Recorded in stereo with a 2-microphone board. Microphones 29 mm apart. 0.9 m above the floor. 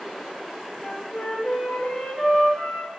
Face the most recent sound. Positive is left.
turn(degrees=55)  # may be behind; listen again after turning